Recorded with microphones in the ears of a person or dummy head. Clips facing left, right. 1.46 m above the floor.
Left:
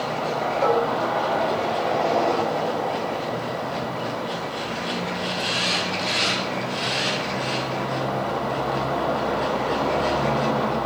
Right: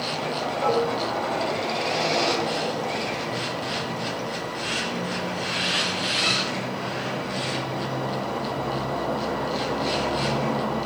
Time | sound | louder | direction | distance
0.6 | dishes clattering | left 2 dB | 65° left (ahead or behind) | 5 m